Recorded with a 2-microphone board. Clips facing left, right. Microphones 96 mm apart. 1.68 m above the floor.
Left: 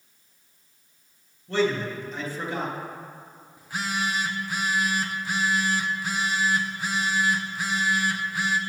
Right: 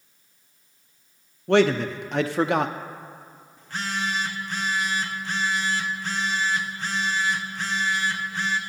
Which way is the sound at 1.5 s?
70° right (ahead or behind).